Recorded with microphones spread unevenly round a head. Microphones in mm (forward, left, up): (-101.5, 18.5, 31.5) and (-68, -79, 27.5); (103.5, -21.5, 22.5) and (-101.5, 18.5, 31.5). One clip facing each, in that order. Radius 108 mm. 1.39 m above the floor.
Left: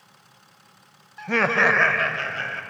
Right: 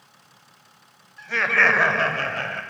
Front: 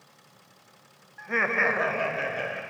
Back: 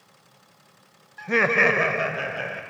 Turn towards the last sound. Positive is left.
turn(degrees=-100)